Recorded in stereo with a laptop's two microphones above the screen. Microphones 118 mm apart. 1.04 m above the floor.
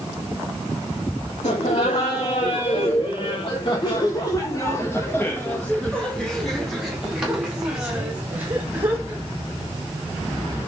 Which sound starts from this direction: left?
Laughter, at 1.4 s.